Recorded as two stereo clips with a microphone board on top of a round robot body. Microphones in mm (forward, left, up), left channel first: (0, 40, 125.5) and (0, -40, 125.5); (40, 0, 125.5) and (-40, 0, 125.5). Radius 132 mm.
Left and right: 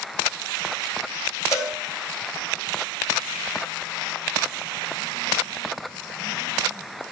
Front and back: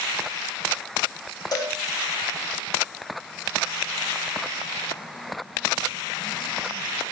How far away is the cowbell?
About 3 m.